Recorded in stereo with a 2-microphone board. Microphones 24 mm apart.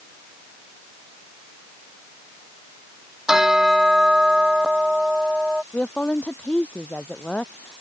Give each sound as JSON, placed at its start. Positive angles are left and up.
{"t": 3.3, "sound": "a bell", "side_deg": -20}
{"t": 5.7, "sound": "a woman speaking", "side_deg": 60}